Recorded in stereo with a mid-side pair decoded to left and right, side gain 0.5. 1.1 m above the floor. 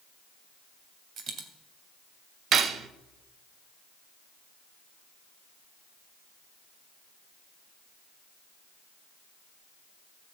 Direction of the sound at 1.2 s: 55° right.